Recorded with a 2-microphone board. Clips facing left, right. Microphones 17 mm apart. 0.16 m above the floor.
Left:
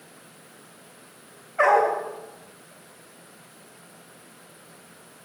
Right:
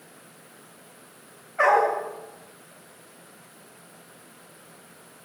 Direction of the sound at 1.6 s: 25° left (ahead or behind).